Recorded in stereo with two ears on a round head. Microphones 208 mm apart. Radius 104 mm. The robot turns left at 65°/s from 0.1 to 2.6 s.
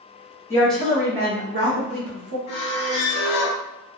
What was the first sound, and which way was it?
A woman speaking, 15° left.